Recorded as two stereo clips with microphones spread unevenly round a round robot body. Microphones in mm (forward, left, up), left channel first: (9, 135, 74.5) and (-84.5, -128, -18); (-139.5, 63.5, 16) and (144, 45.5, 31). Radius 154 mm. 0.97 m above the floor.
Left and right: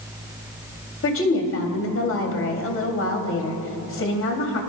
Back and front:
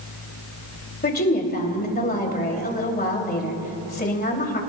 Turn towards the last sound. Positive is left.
turn(degrees=120)